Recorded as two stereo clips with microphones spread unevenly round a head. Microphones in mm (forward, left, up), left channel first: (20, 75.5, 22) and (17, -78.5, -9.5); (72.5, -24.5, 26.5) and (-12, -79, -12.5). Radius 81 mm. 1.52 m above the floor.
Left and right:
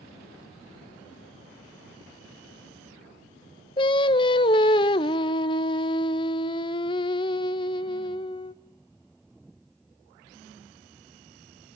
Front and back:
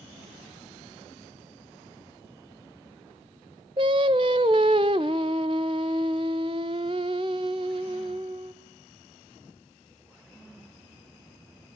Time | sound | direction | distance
3.8 | singing | 150° left | 0.5 m